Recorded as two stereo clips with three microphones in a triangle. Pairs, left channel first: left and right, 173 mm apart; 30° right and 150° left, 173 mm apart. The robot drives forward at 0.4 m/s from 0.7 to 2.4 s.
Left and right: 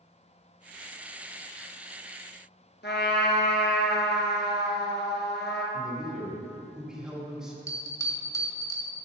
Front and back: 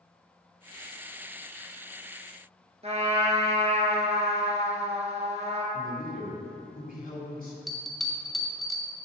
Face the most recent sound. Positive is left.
turn(degrees=60)